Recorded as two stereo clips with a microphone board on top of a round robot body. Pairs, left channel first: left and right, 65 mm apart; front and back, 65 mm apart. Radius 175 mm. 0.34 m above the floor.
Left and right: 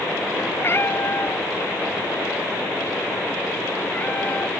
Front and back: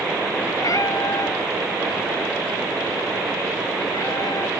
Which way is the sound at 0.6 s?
35° left.